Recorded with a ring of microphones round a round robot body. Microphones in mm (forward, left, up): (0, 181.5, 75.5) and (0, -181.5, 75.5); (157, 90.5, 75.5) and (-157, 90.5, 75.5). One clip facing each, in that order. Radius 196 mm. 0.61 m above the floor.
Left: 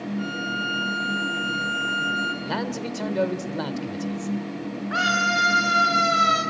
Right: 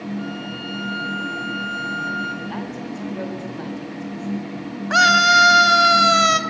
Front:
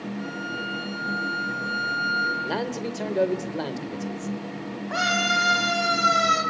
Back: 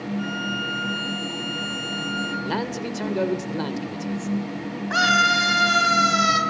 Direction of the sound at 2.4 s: 110° left.